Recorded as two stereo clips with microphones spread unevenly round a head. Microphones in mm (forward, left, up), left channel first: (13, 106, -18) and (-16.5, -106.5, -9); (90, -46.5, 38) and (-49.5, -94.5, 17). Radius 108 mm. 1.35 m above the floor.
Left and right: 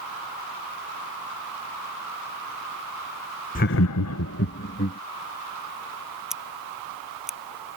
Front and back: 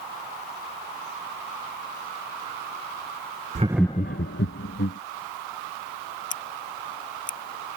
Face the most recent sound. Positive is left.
turn(degrees=-10)